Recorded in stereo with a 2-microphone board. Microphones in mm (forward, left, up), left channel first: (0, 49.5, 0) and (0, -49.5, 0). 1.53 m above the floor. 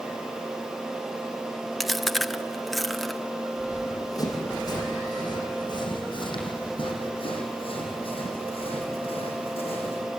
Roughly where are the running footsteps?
Left.